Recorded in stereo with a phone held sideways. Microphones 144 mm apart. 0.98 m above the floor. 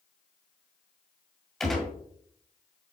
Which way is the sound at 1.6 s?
Centre (ahead or behind).